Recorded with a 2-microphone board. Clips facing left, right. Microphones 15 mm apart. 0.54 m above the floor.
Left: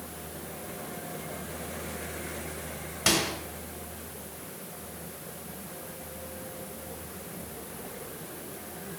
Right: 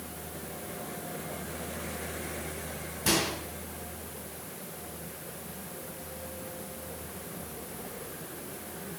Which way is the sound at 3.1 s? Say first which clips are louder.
Left 2 dB; 65° left (ahead or behind).